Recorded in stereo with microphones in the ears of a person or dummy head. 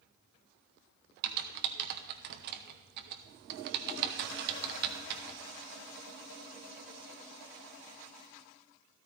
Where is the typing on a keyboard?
55° right (ahead or behind), 0.9 m.